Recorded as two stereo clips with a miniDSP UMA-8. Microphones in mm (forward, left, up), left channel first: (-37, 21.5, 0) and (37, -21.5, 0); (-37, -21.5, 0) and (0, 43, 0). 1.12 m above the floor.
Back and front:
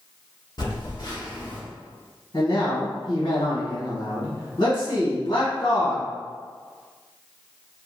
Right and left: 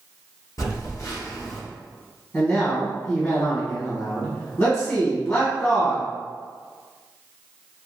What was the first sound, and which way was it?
A phone buzzing, 170° right.